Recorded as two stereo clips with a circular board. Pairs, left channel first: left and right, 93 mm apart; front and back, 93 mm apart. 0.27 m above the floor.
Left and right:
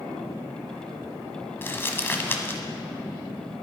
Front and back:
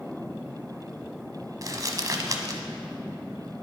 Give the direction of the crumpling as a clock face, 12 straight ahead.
7 o'clock.